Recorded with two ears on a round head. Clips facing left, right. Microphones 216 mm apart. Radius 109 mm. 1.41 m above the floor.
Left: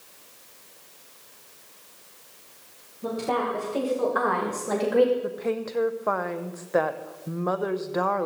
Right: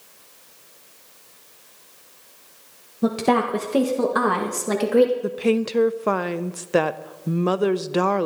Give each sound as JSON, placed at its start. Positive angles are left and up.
{"t": 3.0, "sound": "a woman speaking", "side_deg": -75, "distance_m": 1.5}
{"t": 5.2, "sound": "a woman speaking", "side_deg": -45, "distance_m": 0.7}